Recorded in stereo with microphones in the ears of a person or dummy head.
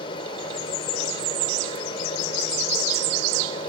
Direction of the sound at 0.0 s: 30° left (ahead or behind).